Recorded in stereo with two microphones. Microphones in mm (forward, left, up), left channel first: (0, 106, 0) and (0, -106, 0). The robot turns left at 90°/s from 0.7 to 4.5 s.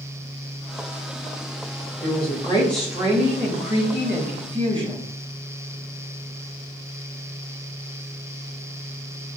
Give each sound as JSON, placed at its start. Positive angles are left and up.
{"t": 2.0, "sound": "a woman speaking", "azimuth_deg": 70, "distance_m": 1.1}